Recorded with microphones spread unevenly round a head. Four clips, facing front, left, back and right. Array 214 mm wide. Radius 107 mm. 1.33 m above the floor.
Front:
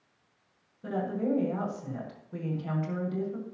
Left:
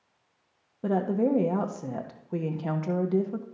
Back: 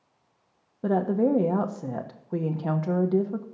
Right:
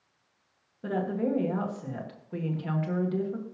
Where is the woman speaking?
155° left, 1.3 m.